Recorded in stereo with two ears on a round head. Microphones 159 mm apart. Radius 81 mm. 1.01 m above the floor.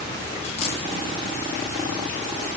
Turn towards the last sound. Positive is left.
turn(degrees=35)  # may be behind; listen again after turning